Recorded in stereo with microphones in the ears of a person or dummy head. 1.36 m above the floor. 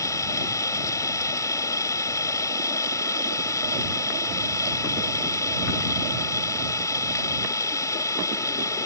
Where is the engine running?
15° left (ahead or behind).